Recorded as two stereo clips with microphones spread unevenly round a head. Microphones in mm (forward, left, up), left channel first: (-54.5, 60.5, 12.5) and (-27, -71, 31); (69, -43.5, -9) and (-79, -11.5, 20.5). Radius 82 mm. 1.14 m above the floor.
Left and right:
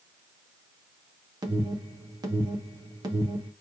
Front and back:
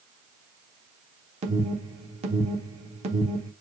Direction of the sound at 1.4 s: 140° right.